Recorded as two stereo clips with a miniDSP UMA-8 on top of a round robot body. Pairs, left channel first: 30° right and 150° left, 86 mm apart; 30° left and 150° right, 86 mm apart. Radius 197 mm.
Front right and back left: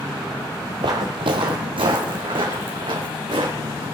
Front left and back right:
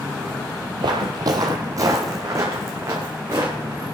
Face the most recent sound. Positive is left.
turn(degrees=155)